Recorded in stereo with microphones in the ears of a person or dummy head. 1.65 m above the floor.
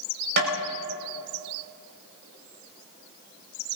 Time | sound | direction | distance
0.4 | tapping | 55° right (ahead or behind) | 4.5 m